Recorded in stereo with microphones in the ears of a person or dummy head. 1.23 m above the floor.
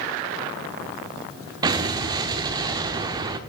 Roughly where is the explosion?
Centre.